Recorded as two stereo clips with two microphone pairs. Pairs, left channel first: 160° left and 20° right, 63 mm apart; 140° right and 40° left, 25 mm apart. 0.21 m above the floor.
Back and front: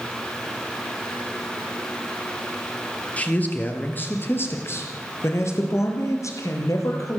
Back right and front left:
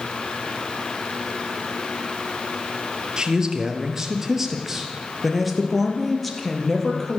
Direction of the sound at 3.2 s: 95° left.